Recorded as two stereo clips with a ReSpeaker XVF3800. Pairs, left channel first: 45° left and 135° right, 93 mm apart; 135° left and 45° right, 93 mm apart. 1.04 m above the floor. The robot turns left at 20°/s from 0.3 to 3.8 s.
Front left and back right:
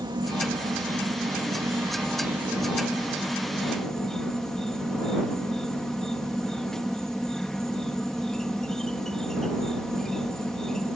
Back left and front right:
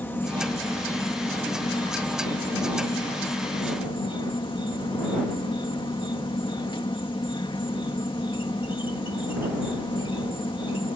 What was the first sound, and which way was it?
An insect, 160° right.